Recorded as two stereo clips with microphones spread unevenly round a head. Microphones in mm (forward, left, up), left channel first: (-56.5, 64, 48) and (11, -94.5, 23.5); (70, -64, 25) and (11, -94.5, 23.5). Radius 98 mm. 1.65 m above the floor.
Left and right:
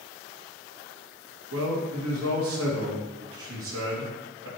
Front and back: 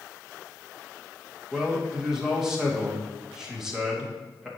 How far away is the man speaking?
About 2.5 m.